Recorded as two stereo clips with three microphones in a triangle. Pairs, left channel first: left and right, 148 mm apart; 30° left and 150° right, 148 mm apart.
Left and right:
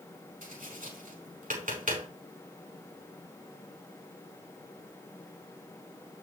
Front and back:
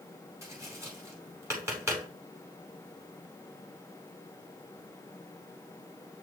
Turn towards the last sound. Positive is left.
turn(degrees=-80)